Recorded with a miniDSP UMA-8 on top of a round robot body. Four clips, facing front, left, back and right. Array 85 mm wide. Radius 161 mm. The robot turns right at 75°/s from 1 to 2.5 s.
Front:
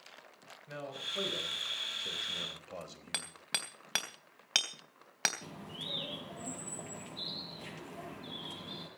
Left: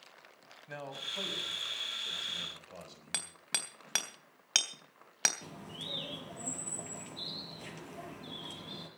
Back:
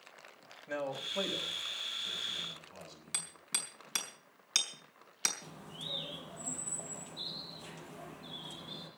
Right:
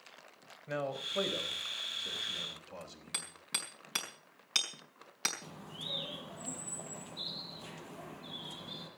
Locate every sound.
0.7 s a man speaking: 105° right, 4.5 m; by 3.3 s 5° left, 4.5 m
3.1 s hammering: 40° left, 3 m
5.4 s a bird: 45° left, 6 m